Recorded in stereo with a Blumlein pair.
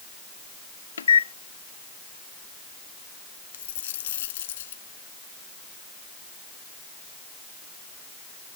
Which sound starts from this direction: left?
A microwave, at 1.0 s.